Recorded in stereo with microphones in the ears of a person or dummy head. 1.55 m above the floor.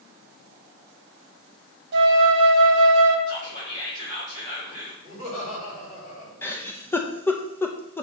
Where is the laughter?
35° left (ahead or behind), 3.5 m.